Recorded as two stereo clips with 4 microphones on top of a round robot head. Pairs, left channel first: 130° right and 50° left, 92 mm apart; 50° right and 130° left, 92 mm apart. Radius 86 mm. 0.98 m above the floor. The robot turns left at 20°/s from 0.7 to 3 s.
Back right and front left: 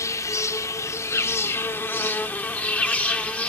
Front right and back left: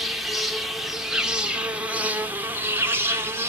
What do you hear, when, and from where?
0.0 s an insect: 145° right, 1.7 m; by 3.5 s 170° left, 1.7 m